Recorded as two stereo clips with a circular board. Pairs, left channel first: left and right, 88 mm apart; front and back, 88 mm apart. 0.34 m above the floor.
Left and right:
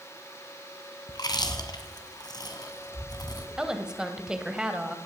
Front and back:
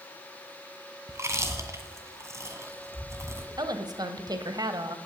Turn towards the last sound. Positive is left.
turn(degrees=-170)